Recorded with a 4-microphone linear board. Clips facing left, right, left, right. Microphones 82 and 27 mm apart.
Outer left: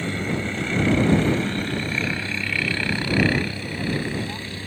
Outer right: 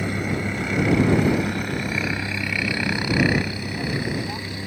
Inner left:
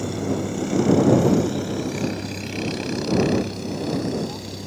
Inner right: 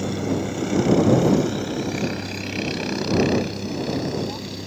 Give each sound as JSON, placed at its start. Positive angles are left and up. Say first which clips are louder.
{"t": 0.0, "sound": "a helicopter", "louder": "outer right 1 dB, inner right 1 dB", "side_deg": -10}